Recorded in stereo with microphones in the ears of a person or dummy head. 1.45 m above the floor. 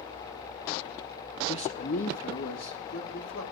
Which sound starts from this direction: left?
A man speaking, at 1.5 s.